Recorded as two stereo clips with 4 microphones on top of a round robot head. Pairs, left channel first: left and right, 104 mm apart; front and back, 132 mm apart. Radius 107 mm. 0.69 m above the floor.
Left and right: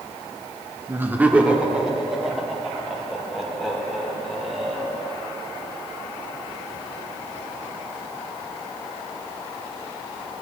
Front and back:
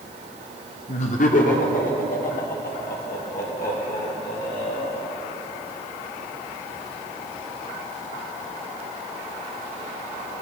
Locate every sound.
0.9 s laughter: 25° right, 1.3 m; by 5.1 s 5° left, 6 m